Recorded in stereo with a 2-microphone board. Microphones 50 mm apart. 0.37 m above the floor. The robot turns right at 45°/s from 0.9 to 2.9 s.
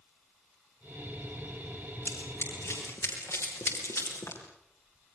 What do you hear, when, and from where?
2.0 s running footsteps: 45° left (ahead or behind), 9.5 m; by 4.4 s 80° left, 7.5 m